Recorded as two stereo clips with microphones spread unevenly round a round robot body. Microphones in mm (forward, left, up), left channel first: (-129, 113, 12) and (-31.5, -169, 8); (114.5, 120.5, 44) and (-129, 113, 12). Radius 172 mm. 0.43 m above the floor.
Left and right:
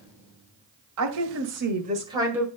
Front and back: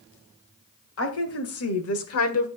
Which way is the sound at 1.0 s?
40° right.